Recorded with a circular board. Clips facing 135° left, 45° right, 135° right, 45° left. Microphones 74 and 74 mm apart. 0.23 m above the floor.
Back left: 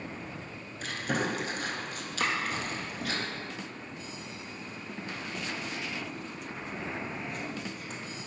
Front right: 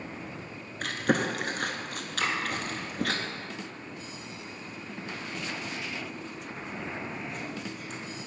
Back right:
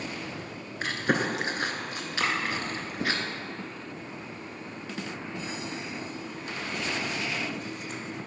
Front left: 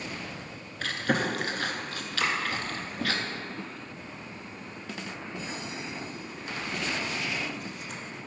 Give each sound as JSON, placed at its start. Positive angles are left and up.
{"t": 0.8, "sound": "chewing", "azimuth_deg": -65, "distance_m": 0.7}
{"t": 2.2, "sound": "chopping", "azimuth_deg": 180, "distance_m": 1.6}